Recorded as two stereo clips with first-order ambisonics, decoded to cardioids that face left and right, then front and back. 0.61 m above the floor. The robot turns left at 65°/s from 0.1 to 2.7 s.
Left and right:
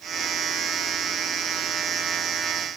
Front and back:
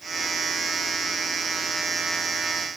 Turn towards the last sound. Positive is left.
No sound to turn to.